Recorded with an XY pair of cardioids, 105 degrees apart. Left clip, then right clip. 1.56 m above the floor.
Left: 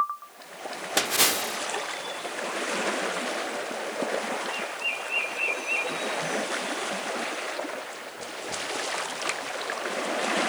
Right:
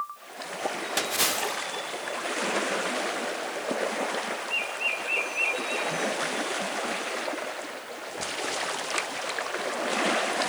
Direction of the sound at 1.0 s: 30° left.